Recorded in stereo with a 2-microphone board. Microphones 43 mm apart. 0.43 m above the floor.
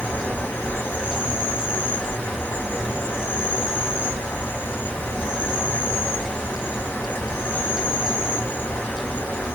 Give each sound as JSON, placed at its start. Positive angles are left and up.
{"t": 0.0, "sound": "an insect", "side_deg": 50, "distance_m": 1.4}